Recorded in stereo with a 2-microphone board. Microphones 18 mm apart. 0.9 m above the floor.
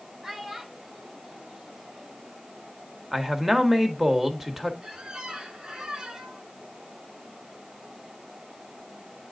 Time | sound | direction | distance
0.2 | a child speaking | 25° right (ahead or behind) | 4.5 m
3.1 | a man speaking | 20° right (ahead or behind) | 1.4 m
4.8 | a squeak | 50° right (ahead or behind) | 2 m